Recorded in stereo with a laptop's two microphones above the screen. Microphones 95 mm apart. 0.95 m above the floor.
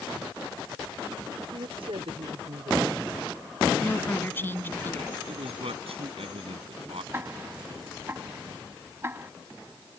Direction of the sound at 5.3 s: 85° right.